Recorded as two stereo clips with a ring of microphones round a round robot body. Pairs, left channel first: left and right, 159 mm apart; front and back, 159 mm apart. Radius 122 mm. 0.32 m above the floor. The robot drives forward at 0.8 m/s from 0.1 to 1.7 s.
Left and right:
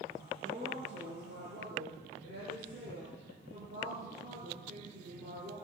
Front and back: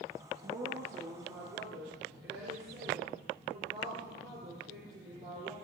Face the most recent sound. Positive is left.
turn(degrees=-145)